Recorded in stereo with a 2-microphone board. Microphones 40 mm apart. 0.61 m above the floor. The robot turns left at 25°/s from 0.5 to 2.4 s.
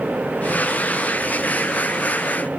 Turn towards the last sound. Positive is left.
No sound to turn to.